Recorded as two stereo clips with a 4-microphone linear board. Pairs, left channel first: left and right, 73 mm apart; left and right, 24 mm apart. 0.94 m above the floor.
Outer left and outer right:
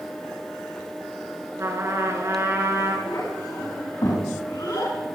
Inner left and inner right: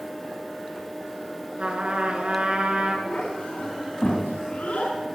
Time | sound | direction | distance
1.6 | a trumpet | 35° right (ahead or behind) | 3.5 m
3.0 | a child speaking | 70° left (ahead or behind) | 5 m